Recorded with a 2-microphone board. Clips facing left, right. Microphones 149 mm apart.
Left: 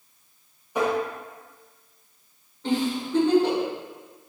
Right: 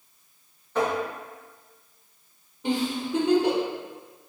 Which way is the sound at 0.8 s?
15° left (ahead or behind).